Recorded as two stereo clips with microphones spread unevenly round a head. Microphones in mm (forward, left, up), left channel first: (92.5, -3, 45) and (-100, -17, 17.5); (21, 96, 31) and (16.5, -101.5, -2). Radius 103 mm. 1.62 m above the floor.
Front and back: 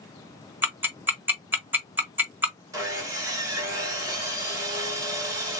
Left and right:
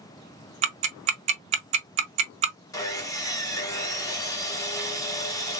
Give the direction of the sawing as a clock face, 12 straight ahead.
8 o'clock.